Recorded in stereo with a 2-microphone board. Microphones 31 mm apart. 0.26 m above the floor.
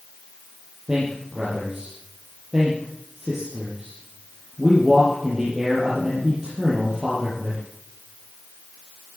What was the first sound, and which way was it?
A man speaking, 15° right (ahead or behind).